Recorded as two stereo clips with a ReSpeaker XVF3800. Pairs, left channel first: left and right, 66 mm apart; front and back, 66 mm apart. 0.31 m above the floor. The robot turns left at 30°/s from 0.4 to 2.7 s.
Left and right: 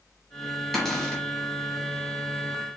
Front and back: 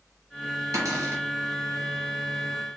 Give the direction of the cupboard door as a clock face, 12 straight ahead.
6 o'clock.